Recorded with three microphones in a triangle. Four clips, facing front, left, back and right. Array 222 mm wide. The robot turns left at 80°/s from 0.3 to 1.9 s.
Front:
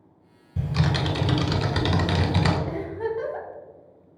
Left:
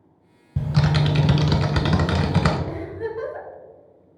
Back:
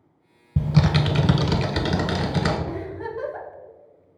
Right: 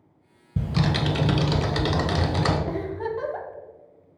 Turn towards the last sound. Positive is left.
turn(degrees=-60)